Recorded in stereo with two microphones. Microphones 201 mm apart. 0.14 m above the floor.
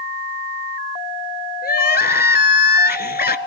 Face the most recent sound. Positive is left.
turn(degrees=50)  # may be behind; listen again after turning